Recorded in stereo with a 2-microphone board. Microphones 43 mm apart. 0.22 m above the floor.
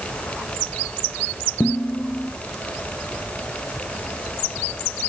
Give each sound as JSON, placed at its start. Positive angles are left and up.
{"t": 1.6, "sound": "dishes clattering", "side_deg": 60, "distance_m": 4.5}